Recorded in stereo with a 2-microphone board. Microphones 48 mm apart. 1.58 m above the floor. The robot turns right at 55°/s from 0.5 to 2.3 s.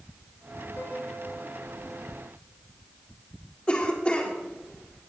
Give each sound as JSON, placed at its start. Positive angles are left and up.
{"t": 0.8, "sound": "a piano", "azimuth_deg": 95, "distance_m": 5.0}
{"t": 3.7, "sound": "a cough", "side_deg": 25, "distance_m": 3.5}